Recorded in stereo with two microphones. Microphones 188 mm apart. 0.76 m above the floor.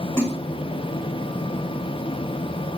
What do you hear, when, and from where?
0.2 s a splash: 15° left (ahead or behind), 1.8 m